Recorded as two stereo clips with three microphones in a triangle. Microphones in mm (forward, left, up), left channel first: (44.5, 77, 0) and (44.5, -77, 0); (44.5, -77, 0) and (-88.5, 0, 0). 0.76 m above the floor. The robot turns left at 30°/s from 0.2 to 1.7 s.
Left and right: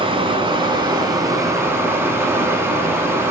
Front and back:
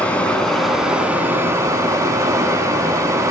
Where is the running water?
105° right, 0.8 m; by 3.3 s 150° right, 0.8 m.